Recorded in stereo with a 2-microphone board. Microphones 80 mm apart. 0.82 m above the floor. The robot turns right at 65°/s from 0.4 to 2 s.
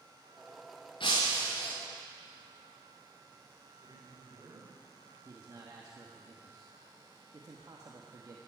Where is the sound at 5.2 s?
50° right (ahead or behind), 1.3 m.